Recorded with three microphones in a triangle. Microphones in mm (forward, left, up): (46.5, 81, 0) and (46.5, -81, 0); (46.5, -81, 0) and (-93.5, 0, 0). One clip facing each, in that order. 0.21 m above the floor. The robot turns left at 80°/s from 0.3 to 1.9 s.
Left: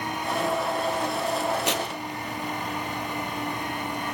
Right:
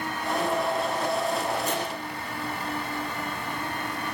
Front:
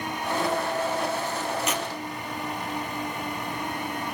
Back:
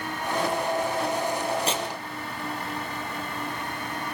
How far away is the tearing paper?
About 3 m.